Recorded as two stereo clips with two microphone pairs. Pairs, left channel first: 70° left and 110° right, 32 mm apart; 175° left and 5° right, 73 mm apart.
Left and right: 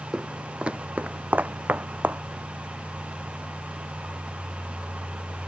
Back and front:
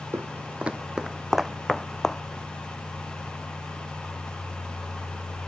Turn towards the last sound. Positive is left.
turn(degrees=-100)